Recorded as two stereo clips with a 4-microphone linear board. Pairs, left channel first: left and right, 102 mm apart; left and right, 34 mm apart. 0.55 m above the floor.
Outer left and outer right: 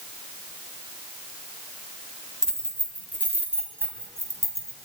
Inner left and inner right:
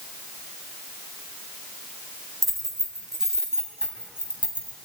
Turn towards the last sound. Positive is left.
turn(degrees=-30)  # may be behind; listen again after turning